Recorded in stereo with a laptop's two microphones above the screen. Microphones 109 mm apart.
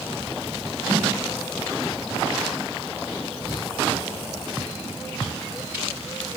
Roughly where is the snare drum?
Right.